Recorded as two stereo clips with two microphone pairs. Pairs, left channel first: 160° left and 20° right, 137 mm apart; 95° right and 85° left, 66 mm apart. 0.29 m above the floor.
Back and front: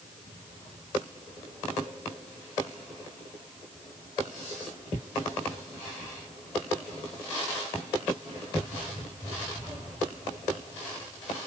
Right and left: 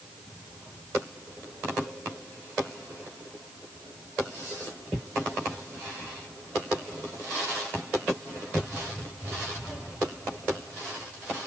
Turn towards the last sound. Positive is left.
No sound to turn to.